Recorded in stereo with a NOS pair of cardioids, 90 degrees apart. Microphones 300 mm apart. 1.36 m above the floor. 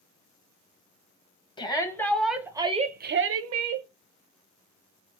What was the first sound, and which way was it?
A shout, 15° left.